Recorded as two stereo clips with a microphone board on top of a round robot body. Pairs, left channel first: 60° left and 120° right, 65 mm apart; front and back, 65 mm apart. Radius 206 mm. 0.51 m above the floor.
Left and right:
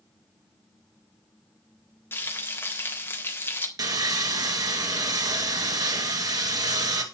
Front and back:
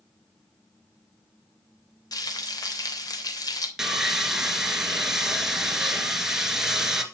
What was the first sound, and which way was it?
Frying, 5° left.